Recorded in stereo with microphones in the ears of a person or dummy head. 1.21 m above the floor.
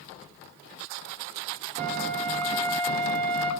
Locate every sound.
1.8 s a flute: 35° right (ahead or behind), 2 m